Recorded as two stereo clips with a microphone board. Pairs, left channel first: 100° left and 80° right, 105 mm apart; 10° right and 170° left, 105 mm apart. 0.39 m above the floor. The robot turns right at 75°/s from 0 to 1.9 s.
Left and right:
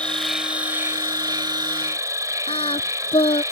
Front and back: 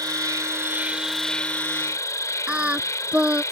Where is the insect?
170° left; by 3.5 s 45° right.